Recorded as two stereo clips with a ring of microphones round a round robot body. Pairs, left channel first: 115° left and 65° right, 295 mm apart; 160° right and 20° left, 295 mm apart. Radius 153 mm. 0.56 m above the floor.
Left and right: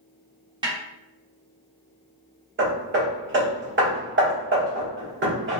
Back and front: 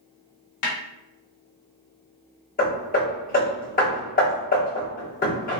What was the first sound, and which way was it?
A snare drum, 140° right.